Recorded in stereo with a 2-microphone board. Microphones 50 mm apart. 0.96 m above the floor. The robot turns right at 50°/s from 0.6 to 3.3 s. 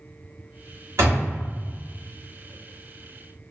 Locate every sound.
1.0 s a door slam: 65° right (ahead or behind), 1.2 m; by 1.3 s 80° right, 1.2 m